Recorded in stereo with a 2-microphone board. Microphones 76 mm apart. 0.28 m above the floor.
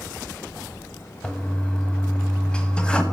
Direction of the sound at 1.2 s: 10° left (ahead or behind).